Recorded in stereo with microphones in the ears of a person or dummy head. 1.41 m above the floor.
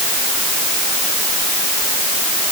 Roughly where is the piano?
No piano in this recording.